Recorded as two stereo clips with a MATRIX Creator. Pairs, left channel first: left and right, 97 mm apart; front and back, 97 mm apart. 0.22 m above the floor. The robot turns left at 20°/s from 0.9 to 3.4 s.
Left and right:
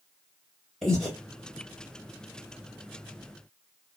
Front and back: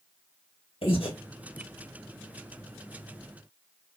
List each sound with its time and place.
0.8 s breathing: 5° left, 2 m; by 1.1 s straight ahead, 2 m